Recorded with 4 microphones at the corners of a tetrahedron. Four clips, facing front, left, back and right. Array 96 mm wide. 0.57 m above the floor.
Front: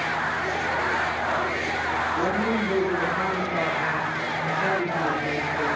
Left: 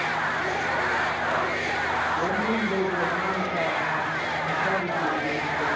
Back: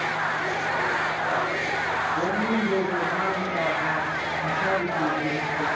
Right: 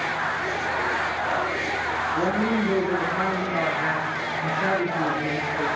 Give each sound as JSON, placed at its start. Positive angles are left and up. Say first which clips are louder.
{"t": 2.1, "sound": "a woman speaking", "louder": "right 2 dB, even", "azimuth_deg": -65, "distance_m": 8.5}